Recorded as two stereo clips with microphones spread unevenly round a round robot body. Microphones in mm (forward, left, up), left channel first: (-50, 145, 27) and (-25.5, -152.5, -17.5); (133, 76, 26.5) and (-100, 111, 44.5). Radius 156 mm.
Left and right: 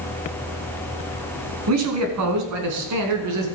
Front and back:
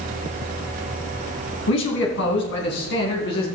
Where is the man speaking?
45° right, 3 m; by 3.5 s 60° right, 3.5 m.